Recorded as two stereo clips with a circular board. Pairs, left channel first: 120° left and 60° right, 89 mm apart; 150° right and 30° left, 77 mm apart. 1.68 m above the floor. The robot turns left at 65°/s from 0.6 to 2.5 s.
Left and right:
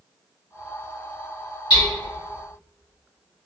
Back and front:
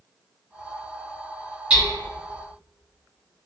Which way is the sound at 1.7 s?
110° left.